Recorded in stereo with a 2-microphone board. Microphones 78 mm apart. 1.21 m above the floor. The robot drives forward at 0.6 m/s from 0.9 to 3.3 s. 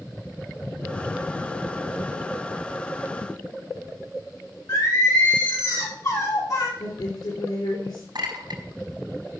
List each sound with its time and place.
4.7 s singing: 55° left (ahead or behind), 6 m
6.8 s a woman speaking: 80° left, 3 m
8.2 s a clink: 70° right (ahead or behind), 3 m